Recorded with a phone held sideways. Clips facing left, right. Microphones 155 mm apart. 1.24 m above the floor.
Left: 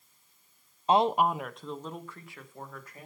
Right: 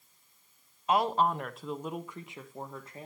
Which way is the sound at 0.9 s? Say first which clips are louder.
Left 3 dB; 30° left (ahead or behind).